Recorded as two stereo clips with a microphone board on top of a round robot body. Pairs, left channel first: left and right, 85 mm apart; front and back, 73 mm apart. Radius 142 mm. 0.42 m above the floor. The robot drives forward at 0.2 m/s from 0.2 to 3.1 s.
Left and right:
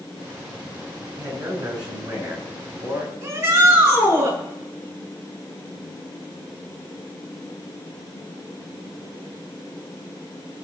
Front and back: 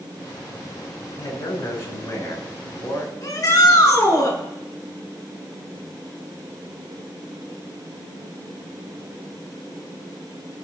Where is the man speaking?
50° right, 5 m.